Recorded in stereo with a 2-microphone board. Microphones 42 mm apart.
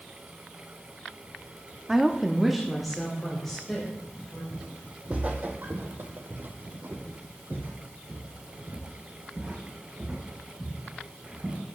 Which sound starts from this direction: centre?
A woman speaking, at 1.9 s.